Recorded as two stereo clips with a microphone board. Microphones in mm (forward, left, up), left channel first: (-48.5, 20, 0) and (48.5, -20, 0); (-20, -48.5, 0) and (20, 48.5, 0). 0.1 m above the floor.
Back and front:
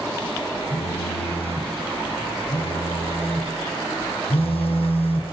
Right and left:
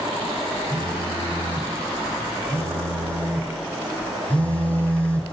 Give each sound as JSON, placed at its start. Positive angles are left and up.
{"t": 0.7, "sound": "a phone buzzing", "azimuth_deg": 170, "distance_m": 4.0}